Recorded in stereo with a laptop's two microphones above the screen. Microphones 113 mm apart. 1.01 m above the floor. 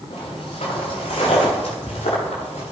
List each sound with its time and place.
0.1 s footsteps: 70° left (ahead or behind), 4 m; by 2.7 s 80° left, 6.5 m